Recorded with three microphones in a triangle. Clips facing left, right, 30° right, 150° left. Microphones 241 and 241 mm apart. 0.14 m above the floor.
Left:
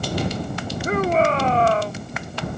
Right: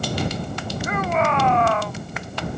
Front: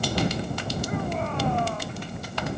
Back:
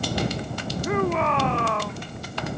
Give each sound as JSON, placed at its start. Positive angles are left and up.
{"t": 0.8, "sound": "a shout", "azimuth_deg": 145}